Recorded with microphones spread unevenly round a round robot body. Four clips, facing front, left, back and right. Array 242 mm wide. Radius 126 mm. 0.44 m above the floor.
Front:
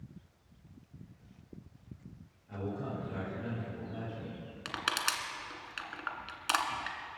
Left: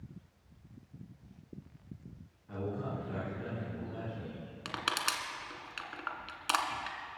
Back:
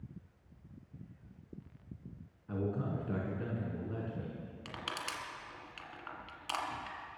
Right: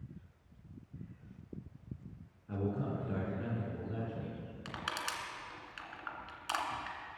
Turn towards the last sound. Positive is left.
turn(degrees=50)